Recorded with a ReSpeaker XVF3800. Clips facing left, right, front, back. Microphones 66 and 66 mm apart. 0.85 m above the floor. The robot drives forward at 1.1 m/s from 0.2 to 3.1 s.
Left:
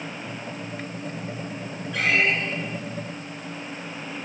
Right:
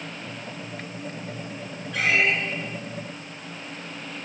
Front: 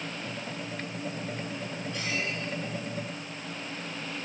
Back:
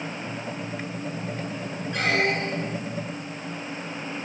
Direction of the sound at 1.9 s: Straight behind.